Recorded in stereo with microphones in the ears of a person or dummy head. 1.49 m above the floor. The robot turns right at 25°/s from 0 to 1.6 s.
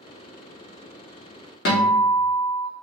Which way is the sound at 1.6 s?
60° left (ahead or behind).